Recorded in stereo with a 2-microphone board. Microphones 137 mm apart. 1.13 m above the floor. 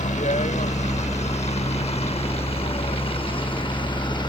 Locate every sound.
0.0 s a helicopter: 60° left (ahead or behind); by 4.3 s 35° left (ahead or behind)